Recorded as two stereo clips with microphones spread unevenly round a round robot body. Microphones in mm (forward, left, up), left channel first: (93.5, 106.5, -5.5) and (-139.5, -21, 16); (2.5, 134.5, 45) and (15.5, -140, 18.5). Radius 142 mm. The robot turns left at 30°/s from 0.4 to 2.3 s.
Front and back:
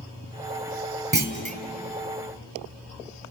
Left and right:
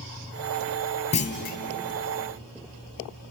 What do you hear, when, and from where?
1.1 s a clunk: 160° left, 2.5 m; by 1.6 s 145° left, 2.5 m